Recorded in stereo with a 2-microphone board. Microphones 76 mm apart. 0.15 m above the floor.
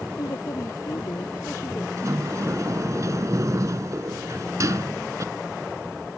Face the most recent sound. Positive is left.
turn(degrees=-45)  # may be behind; listen again after turning